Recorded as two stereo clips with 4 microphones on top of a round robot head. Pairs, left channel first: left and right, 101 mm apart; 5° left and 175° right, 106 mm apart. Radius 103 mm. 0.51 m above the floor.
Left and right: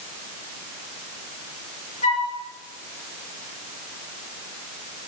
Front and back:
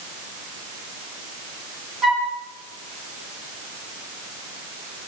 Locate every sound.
2.0 s a flute: 95° left, 8.5 m